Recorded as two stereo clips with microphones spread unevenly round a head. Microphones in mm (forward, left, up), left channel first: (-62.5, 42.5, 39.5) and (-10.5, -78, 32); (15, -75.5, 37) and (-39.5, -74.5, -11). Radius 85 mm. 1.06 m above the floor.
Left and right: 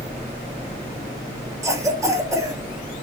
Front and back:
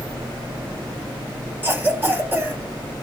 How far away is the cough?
About 4.5 m.